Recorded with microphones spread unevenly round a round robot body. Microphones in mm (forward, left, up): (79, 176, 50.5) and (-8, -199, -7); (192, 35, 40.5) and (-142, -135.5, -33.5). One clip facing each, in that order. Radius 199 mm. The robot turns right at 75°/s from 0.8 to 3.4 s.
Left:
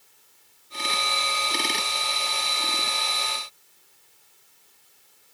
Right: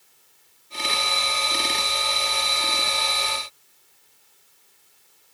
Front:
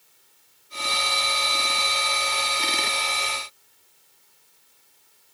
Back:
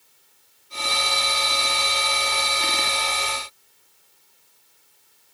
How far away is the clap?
I don't hear a clap.